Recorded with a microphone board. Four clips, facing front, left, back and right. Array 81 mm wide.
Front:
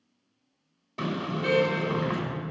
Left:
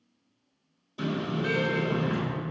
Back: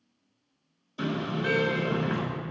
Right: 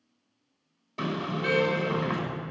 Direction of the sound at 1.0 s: 35° right.